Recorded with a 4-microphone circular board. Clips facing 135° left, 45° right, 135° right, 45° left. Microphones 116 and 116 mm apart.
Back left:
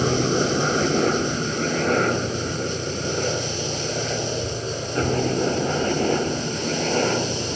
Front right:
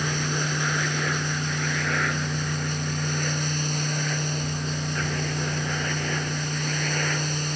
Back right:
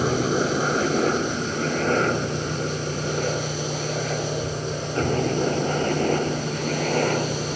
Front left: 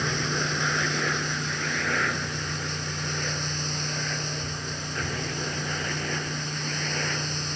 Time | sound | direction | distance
0.0 | a helicopter | straight behind | ?